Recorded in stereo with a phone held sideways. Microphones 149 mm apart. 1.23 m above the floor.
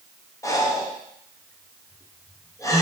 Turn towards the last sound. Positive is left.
turn(degrees=20)  # may be behind; listen again after turning